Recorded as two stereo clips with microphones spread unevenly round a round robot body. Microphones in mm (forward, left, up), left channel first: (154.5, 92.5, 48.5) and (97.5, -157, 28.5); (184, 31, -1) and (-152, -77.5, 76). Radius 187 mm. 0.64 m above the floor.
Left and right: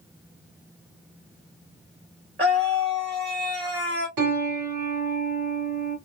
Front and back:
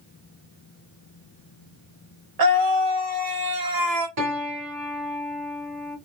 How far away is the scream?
About 1.5 m.